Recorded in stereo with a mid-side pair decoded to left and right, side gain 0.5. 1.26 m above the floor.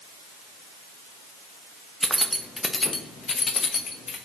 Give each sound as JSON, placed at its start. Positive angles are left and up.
{"t": 2.0, "sound": "keys jangling", "azimuth_deg": -10, "distance_m": 0.8}